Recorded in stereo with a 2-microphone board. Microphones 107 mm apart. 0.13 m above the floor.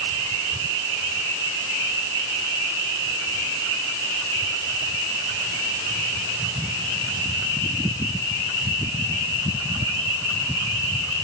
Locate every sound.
Only background noise.